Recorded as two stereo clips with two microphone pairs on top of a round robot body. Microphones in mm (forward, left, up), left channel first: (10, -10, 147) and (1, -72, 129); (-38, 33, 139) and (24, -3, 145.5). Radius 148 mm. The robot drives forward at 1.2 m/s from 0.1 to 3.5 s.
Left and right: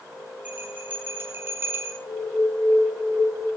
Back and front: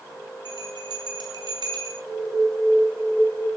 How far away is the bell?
About 7 m.